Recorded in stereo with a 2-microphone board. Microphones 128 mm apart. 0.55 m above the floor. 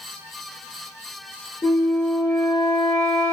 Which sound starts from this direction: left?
A flute, at 1.6 s.